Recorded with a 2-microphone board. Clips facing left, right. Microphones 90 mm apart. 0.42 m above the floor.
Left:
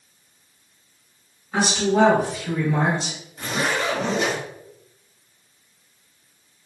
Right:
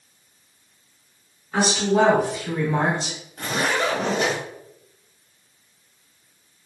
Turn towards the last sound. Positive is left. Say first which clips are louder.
# right 1 dB
turn(degrees=-60)  # may be behind; listen again after turning